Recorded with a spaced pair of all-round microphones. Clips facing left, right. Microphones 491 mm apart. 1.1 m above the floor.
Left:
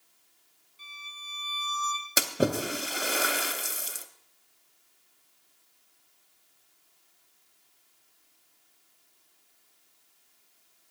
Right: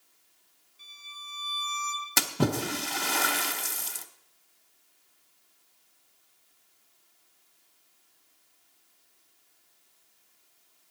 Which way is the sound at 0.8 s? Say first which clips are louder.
Left 1 dB; 75° left (ahead or behind).